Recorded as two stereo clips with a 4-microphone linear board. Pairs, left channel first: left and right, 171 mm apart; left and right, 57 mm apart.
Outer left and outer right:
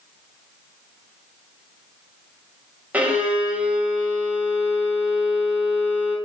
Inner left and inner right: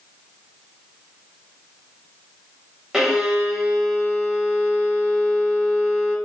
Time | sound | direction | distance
2.9 | a violin | 10° right (ahead or behind) | 1.5 m